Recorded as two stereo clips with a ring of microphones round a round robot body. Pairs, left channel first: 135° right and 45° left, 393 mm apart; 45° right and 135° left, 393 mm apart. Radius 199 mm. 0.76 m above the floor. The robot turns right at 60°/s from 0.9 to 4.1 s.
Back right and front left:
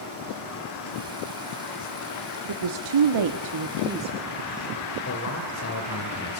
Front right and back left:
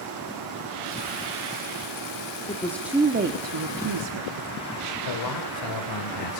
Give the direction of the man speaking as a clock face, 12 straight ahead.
3 o'clock.